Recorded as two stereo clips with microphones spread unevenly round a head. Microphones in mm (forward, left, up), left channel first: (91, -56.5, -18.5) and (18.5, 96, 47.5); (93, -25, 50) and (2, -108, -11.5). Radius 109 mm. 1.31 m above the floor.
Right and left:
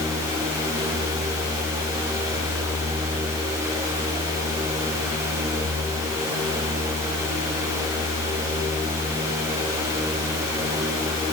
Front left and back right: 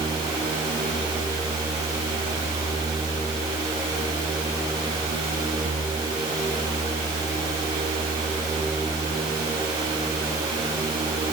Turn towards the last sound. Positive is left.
No sound to turn to.